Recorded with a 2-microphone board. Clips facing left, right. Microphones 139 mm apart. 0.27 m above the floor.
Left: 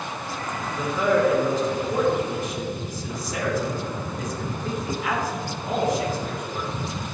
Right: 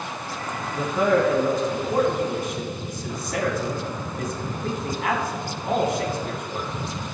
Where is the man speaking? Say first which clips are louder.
Right 1 dB; 60° right (ahead or behind), 2 m.